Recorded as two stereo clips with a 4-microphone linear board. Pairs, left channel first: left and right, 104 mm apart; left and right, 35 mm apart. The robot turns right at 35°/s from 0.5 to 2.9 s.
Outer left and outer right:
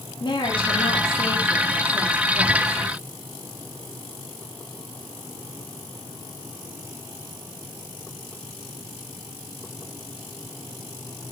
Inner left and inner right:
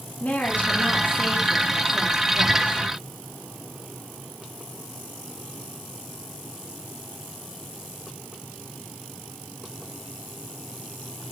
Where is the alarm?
I don't hear an alarm.